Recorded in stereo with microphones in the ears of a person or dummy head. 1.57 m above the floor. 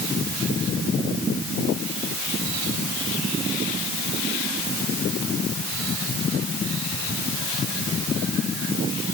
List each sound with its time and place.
Only background noise.